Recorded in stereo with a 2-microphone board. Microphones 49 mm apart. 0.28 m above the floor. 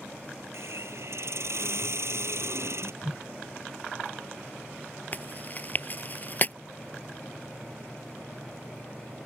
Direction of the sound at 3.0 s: 20° right (ahead or behind).